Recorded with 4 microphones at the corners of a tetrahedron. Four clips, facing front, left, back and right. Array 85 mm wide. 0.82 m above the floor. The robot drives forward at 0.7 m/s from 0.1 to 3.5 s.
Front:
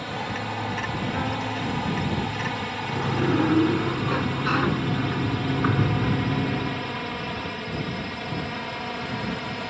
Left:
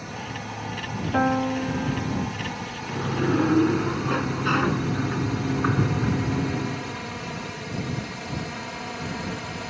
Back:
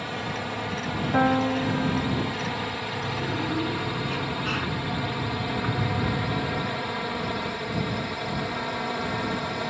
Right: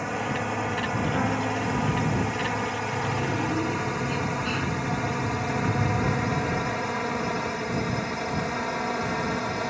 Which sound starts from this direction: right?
A drone, at 0.0 s.